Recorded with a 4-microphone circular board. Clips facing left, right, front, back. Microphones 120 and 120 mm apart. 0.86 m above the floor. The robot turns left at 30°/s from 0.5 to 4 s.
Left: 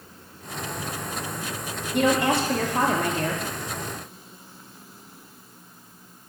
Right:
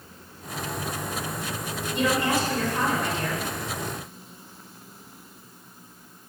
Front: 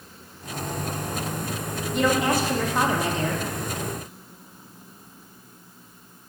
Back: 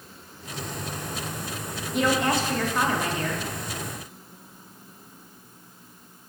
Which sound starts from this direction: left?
A woman speaking, at 1.9 s.